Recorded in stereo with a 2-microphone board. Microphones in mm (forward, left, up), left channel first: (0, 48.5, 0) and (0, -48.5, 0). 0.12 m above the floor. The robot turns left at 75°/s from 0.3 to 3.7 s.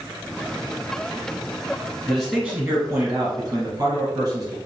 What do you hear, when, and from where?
2.1 s a man speaking: 30° left, 1.4 m; by 4.5 s 95° right, 1.4 m